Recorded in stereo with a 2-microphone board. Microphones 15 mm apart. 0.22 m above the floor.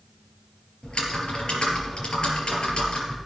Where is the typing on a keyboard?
60° left (ahead or behind), 5 m.